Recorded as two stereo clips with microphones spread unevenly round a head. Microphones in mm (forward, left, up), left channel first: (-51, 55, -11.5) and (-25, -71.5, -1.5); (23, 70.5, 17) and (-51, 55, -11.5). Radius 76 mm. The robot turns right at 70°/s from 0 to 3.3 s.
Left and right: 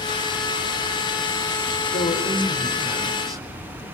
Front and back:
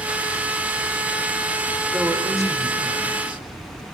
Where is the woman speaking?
120° left, 3.5 m; by 3.4 s 140° right, 3.5 m.